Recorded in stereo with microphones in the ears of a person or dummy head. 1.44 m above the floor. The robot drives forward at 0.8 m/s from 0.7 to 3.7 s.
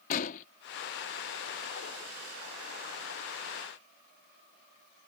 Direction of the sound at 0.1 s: 45° left (ahead or behind).